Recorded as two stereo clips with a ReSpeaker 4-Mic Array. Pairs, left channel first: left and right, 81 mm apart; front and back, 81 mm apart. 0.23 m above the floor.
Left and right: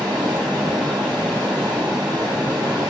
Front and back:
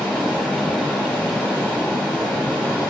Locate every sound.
0.0 s running water: 75° right, 1.8 m